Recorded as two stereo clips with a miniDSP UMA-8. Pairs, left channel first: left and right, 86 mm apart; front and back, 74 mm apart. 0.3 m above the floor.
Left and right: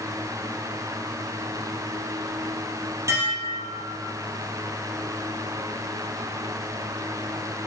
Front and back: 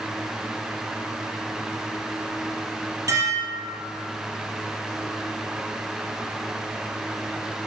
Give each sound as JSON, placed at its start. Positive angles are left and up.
{"t": 3.1, "sound": "dishes clattering", "azimuth_deg": -145, "distance_m": 5.5}